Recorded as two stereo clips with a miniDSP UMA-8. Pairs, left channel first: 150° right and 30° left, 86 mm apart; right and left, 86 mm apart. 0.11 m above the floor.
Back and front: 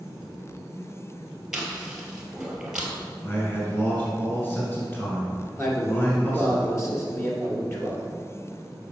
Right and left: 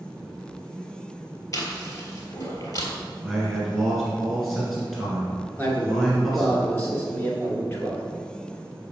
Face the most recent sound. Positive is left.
turn(degrees=-135)